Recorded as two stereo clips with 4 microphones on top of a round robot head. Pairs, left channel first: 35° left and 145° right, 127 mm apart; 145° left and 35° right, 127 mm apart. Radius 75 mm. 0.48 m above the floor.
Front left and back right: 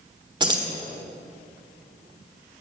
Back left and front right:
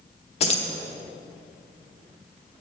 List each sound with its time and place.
0.4 s keys jangling: 165° left, 1.2 m